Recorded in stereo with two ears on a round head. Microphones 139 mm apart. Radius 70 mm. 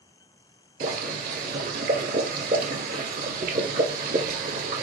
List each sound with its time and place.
0.8 s boiling: 60° right (ahead or behind), 1.4 m